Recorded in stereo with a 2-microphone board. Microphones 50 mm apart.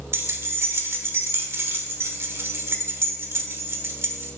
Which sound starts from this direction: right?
Keys jangling, at 0.1 s.